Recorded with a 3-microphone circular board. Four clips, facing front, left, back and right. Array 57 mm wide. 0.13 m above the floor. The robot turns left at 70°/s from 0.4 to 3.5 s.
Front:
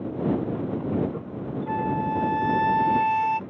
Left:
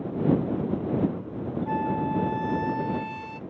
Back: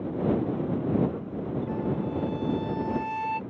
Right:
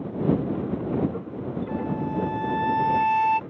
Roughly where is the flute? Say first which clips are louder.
Left 3 dB, front 8 dB; ahead left.